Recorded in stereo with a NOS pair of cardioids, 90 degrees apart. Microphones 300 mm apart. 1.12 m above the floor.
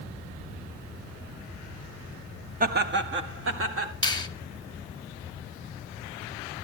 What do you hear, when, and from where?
2.6 s laughter: 30° right, 1.3 m; by 3.9 s 50° right, 3 m
4.0 s a finger snap: 15° left, 1.1 m